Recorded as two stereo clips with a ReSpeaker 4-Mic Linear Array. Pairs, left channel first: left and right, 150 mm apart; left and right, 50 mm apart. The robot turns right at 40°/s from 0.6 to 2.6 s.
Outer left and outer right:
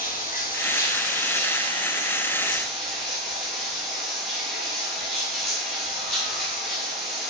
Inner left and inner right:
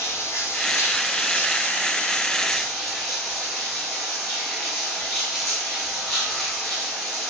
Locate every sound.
0.0 s running water: 100° left, 1.4 m; by 7.3 s straight behind, 1.4 m